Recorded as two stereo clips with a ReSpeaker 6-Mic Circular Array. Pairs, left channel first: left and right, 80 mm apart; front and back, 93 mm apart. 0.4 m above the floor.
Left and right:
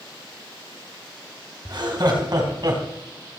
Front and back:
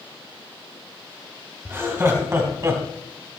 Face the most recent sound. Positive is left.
turn(degrees=-120)